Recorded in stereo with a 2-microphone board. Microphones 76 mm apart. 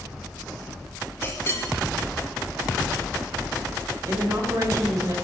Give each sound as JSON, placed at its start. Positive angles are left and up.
{"t": 1.2, "sound": "a clink", "side_deg": 35, "distance_m": 4.0}
{"t": 4.1, "sound": "a woman speaking", "side_deg": -50, "distance_m": 4.5}